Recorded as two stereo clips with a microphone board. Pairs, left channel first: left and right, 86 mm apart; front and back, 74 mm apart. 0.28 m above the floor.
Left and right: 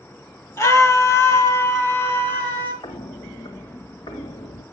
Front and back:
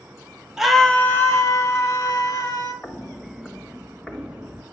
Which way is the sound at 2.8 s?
70° left.